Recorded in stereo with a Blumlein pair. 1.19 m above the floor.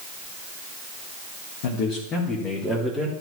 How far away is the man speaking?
About 1.6 m.